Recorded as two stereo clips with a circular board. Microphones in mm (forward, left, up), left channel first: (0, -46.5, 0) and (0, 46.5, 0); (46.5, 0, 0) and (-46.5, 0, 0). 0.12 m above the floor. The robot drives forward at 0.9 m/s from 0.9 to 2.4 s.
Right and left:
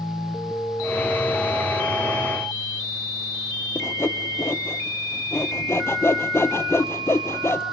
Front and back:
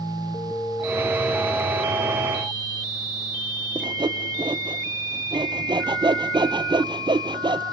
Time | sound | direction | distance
3.8 | sawing | 150° right | 0.8 m